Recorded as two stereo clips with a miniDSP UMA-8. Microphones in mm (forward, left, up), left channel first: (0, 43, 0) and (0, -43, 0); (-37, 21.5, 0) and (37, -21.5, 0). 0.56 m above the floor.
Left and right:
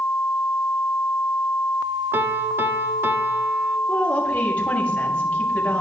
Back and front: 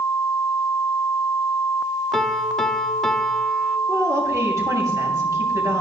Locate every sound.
2.1 s a piano: 130° right, 1.0 m
3.9 s a woman speaking: 20° left, 5 m